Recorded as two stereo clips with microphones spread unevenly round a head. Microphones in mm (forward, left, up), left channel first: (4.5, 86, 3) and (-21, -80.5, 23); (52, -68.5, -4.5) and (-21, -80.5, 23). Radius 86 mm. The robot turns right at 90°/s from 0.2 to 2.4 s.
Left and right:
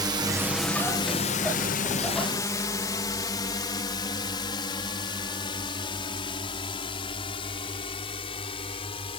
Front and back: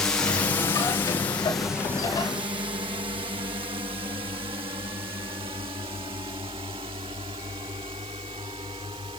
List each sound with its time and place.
0.0 s a drone: 35° right; by 9.2 s 140° left